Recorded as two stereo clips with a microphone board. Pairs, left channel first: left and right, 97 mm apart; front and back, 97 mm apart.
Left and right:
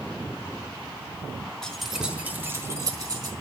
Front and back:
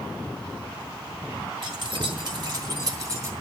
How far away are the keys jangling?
About 1.2 m.